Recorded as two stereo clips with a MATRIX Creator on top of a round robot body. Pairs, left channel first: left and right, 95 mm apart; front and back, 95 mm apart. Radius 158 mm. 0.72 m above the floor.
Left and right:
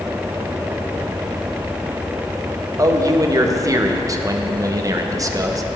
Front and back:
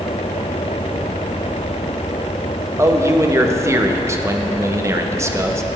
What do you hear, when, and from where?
2.8 s a man speaking: 130° right, 1.5 m